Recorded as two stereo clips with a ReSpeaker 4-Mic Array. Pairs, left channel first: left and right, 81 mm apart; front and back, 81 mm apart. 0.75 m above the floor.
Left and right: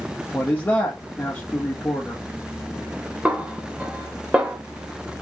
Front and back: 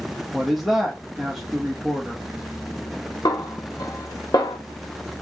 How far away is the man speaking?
About 1.1 m.